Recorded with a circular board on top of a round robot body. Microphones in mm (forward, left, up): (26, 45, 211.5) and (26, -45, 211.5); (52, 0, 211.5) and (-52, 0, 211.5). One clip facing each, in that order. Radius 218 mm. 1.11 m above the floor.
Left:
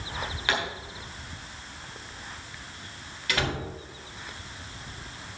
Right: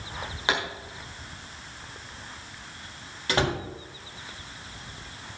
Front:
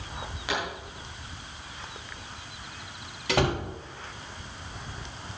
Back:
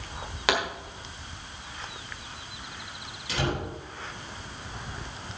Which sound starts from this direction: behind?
A pop, at 0.5 s.